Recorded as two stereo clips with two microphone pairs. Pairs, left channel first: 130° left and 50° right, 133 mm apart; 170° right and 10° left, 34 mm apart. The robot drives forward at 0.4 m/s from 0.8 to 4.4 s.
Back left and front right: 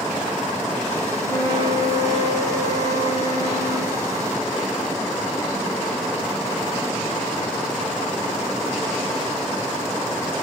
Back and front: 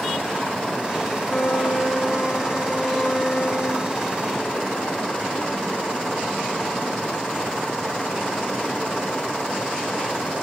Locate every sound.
1.2 s a flute: 150° left, 6.5 m; by 4.0 s 155° left, 7.5 m